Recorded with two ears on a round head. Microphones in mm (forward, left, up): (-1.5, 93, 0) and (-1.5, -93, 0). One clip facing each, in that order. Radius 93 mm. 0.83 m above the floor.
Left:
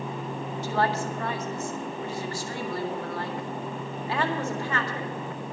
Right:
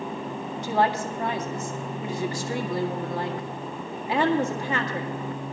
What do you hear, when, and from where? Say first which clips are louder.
0.6 s a woman speaking: right 3 dB; 15° right (ahead or behind), 1.7 m